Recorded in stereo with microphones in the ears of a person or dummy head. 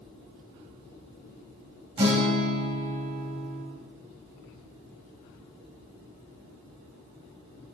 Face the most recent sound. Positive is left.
turn(degrees=-20)  # may be behind; listen again after turning